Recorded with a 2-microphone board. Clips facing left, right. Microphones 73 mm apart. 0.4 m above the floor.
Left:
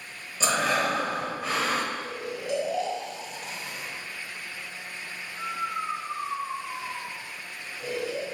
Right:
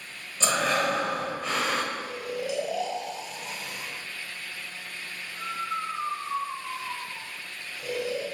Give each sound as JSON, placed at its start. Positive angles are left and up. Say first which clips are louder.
{"t": 0.4, "sound": "breathing", "louder": "even", "side_deg": 5, "distance_m": 0.9}
{"t": 1.9, "sound": "snoring", "louder": "right 1 dB", "side_deg": 0, "distance_m": 1.5}